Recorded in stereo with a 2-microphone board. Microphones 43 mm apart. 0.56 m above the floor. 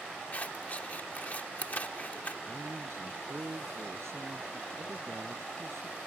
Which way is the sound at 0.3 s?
40° left (ahead or behind).